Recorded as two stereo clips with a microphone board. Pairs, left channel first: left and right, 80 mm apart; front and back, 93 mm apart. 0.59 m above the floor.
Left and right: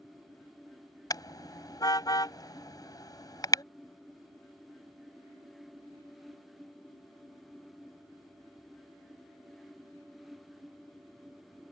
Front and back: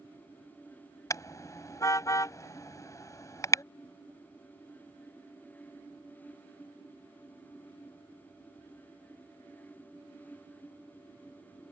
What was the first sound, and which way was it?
A car horn, 55° left.